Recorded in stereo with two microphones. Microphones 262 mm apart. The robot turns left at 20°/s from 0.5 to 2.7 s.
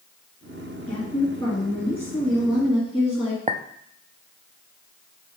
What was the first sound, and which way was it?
A woman speaking, 30° left.